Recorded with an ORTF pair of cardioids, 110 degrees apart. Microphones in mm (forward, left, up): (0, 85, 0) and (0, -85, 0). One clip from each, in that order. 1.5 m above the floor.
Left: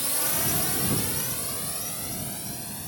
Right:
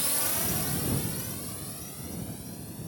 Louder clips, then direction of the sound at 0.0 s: Left 2 dB; straight ahead.